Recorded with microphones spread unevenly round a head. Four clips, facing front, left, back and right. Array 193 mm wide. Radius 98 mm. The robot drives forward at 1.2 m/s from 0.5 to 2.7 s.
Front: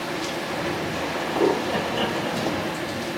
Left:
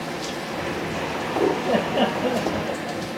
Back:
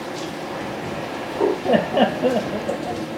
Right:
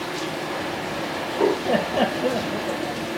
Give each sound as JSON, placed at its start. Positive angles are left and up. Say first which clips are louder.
{"t": 1.6, "sound": "laughter", "louder": "even, back 7 dB", "azimuth_deg": 170}